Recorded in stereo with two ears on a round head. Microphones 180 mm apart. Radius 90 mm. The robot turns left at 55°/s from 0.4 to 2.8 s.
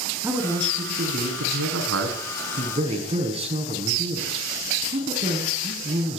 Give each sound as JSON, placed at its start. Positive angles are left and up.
{"t": 0.2, "sound": "a man speaking", "azimuth_deg": -15, "distance_m": 6.0}